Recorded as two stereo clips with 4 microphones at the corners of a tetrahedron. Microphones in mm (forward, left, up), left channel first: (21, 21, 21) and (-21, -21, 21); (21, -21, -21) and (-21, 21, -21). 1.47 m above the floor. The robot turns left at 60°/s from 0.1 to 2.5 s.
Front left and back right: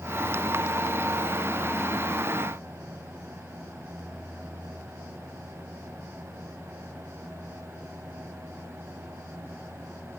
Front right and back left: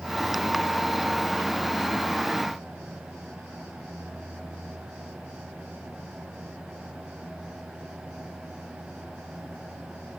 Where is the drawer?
I don't hear a drawer.